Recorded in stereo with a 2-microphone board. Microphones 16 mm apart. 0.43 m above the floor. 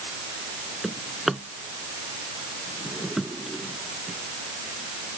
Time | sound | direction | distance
0.8 | a drawer | 10° right (ahead or behind) | ?